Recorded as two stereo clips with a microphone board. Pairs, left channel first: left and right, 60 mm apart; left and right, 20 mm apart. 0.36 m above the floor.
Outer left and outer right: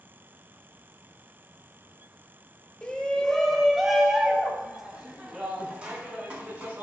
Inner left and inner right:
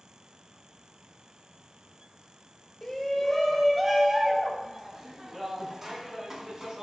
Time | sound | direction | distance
2.8 | a shout | 15° left (ahead or behind) | 1.5 m